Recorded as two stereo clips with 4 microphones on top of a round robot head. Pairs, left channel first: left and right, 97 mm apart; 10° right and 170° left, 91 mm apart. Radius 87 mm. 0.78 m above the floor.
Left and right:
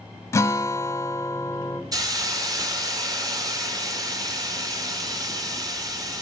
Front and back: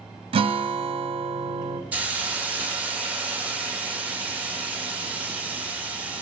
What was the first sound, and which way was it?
A guitar, 155° left.